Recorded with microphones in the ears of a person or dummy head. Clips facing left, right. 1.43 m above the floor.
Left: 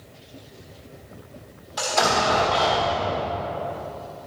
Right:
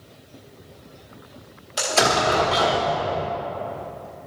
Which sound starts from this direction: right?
An explosion, at 1.8 s.